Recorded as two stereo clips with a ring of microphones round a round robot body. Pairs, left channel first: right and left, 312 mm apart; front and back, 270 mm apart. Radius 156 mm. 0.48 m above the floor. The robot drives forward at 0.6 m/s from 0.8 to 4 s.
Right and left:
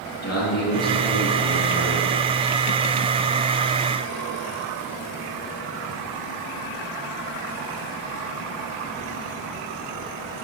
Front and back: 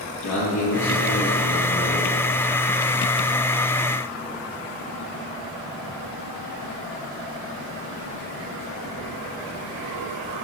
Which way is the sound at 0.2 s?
50° right.